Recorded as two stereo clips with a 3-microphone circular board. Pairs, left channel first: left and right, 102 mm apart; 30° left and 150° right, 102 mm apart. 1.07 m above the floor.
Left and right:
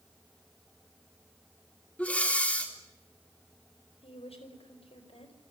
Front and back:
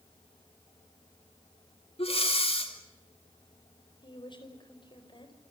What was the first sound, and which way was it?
Breathing, 15° left.